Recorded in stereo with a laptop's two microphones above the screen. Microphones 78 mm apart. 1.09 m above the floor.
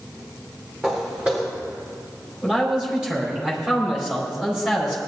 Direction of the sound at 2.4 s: 10° right (ahead or behind).